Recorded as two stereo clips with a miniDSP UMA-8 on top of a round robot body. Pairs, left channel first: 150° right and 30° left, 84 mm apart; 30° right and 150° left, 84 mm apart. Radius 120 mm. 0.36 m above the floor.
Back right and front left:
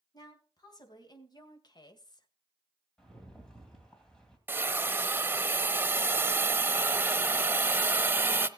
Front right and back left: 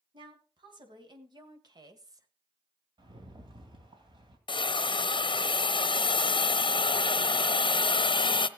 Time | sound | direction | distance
0.1 | a woman speaking | 170° left | 3.5 m
3.0 | a rattle | 130° left | 3 m
4.5 | a hiss | 35° right | 0.7 m